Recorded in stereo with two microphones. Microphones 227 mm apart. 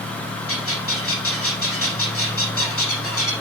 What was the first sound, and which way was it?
A bird, 75° left (ahead or behind).